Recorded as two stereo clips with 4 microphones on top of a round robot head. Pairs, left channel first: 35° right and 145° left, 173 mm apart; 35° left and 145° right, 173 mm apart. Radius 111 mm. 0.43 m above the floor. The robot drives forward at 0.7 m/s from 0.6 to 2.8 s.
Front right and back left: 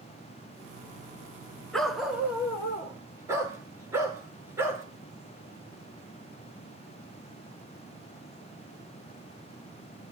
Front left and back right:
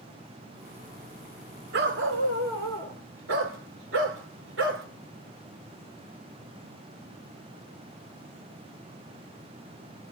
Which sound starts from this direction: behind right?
A dog barking, at 1.7 s.